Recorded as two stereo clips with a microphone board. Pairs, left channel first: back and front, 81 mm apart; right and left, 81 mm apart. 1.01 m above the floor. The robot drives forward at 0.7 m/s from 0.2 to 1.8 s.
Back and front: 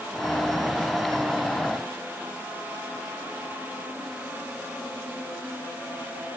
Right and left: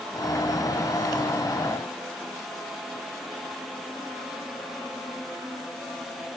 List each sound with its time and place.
Only background noise.